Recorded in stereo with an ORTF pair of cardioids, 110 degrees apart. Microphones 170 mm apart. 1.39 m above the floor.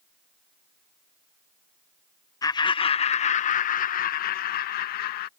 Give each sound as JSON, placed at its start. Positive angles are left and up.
{"t": 2.4, "sound": "laughter", "azimuth_deg": 20}